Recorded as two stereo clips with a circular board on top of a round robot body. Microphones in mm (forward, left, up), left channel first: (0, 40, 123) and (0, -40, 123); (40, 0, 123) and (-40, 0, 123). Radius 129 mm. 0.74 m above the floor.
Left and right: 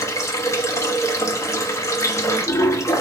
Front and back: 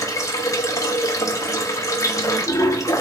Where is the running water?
40° left, 1.1 m.